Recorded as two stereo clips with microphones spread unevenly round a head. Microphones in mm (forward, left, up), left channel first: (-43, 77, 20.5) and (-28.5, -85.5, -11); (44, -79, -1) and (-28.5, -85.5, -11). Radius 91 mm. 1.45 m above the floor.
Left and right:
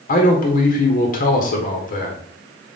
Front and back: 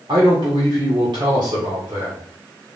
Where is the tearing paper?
I don't hear tearing paper.